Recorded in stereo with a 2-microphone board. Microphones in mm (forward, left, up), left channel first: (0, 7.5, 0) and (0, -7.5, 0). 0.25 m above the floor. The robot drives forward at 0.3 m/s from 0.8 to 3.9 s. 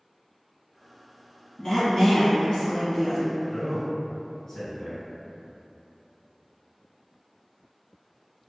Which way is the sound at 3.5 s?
35° left (ahead or behind).